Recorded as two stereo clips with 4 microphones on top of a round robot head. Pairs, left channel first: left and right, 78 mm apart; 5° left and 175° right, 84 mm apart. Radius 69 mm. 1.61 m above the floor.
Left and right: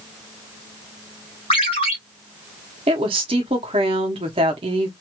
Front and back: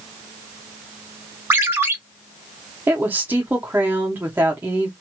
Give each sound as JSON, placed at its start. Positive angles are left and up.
{"t": 1.5, "sound": "a ringtone", "azimuth_deg": 120, "distance_m": 1.4}
{"t": 2.9, "sound": "a woman speaking", "azimuth_deg": -105, "distance_m": 0.8}